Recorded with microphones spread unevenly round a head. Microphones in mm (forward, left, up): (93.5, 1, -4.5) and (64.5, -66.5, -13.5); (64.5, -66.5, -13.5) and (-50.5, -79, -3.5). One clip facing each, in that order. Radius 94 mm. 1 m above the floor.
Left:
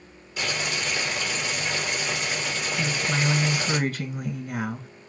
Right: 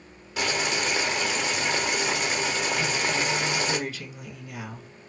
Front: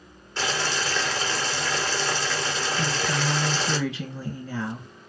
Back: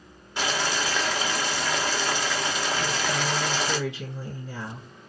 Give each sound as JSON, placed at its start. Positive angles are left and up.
{"t": 0.4, "sound": "boiling", "azimuth_deg": -95, "distance_m": 1.9}
{"t": 2.8, "sound": "a woman speaking", "azimuth_deg": 35, "distance_m": 1.0}